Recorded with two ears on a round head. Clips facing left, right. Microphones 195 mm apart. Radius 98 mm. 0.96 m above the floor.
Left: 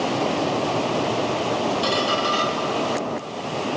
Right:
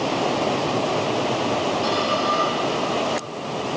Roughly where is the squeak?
Left.